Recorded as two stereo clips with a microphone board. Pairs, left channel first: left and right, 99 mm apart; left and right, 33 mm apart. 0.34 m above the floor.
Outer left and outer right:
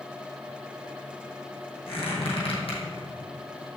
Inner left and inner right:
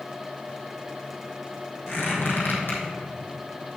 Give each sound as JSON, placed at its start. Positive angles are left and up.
{"t": 1.9, "sound": "a squeak", "side_deg": 70, "distance_m": 2.5}